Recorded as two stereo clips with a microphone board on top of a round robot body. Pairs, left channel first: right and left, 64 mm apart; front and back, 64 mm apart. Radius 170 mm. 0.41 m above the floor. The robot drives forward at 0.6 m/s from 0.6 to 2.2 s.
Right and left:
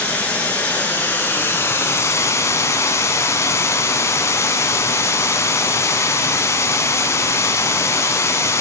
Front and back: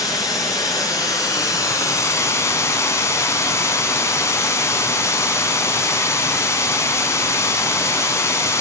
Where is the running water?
25° right, 2 m; by 8.6 s 45° right, 1.2 m.